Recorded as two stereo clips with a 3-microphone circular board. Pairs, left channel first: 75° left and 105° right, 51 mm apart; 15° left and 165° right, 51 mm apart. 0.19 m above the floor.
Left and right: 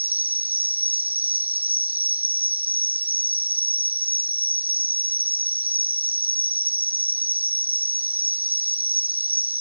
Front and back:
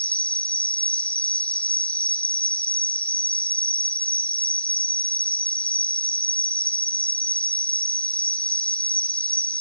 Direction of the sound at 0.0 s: 50° right.